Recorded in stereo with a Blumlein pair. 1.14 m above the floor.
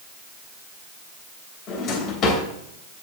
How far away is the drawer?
About 3 m.